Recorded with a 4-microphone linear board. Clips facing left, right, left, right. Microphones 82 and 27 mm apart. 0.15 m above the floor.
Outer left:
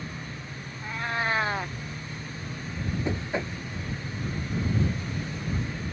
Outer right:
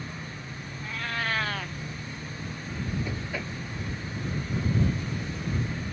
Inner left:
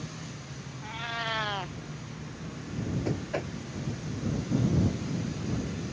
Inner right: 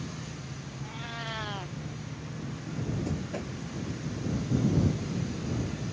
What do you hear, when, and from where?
0.8 s a cat meowing: 25° left (ahead or behind)
3.0 s knocking: 25° left (ahead or behind)